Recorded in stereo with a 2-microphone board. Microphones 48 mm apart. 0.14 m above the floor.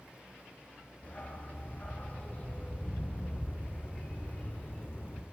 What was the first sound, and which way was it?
A dog barking, 35° left (ahead or behind).